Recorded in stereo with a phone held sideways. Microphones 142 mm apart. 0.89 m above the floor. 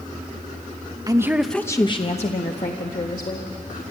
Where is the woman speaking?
25° right (ahead or behind), 1.0 m; by 3.8 s 75° left (ahead or behind), 3 m.